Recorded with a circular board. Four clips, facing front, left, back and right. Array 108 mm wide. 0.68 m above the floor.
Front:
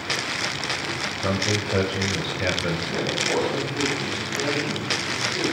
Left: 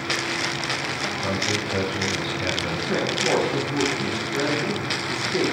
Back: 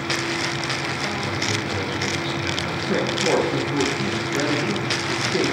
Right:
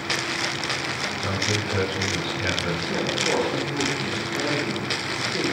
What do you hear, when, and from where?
1.2 s a man speaking: 10° left, 4 m
2.9 s a woman speaking: 145° left, 8 m